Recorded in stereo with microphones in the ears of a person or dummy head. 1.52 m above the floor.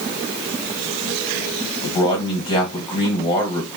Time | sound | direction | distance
1.8 | a man speaking | 25° left (ahead or behind) | 1.5 m